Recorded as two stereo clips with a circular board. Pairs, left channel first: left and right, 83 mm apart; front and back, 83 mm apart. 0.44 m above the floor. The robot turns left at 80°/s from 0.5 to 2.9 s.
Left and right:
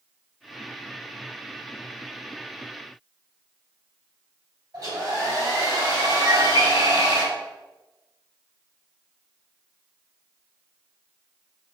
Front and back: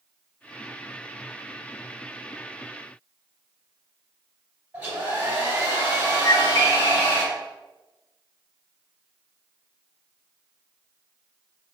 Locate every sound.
4.7 s a hair dryer: 115° right, 1.9 m
6.2 s a bird: 55° right, 1.0 m